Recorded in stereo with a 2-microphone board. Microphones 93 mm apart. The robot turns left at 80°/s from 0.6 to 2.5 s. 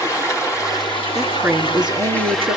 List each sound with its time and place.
0.0 s running water: 145° left, 2.5 m; by 2.6 s 5° right, 2.5 m
1.1 s a woman speaking: straight ahead, 3.5 m; by 2.6 s 105° right, 3.5 m